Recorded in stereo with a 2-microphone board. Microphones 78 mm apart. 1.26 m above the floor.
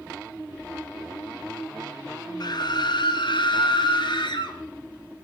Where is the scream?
60° left (ahead or behind), 1.4 m; by 4.6 s 80° left, 2.5 m.